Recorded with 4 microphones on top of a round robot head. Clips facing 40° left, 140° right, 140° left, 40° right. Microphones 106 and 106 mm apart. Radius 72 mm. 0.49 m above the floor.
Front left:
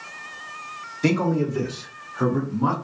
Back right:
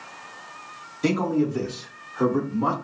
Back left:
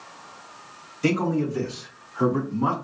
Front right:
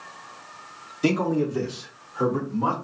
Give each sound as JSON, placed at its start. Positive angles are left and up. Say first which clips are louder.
{"t": 1.0, "sound": "a man speaking", "louder": "front left 1 dB, front right 1 dB", "azimuth_deg": -60, "distance_m": 1.4}